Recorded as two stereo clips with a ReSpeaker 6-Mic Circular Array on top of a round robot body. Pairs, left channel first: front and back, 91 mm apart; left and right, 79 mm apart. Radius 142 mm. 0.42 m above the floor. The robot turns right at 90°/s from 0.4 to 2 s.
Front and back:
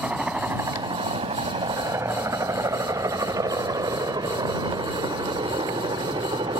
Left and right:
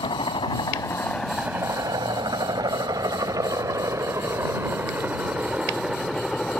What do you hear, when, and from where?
0.0 s a helicopter: 105° left; by 6.6 s 170° left